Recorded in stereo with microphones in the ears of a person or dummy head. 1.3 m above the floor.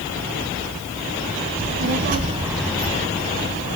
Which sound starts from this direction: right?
A child speaking, at 1.6 s.